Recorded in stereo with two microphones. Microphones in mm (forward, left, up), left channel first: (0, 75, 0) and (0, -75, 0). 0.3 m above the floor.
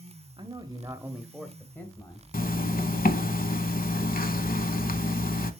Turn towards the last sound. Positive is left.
turn(degrees=70)  # may be behind; listen again after turning